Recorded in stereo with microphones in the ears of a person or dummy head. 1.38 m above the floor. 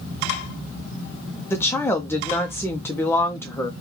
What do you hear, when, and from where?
1.5 s a woman speaking: 15° left (ahead or behind), 0.5 m